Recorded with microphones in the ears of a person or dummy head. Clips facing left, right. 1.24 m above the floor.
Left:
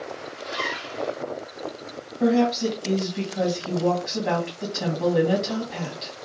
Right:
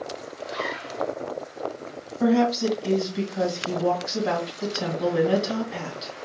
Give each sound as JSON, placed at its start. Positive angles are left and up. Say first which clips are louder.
{"t": 0.4, "sound": "a zipper", "louder": "right 2 dB", "side_deg": 40, "distance_m": 1.3}
{"t": 2.2, "sound": "a woman speaking", "louder": "even", "side_deg": 0, "distance_m": 2.0}